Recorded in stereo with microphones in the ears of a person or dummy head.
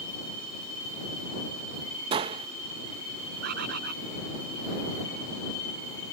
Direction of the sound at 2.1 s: 30° right (ahead or behind).